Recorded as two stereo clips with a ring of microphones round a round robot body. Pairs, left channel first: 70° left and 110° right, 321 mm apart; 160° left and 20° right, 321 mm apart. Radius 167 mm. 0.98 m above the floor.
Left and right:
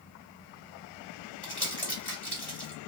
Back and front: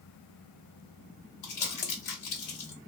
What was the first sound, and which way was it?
Crumpling, 150° left.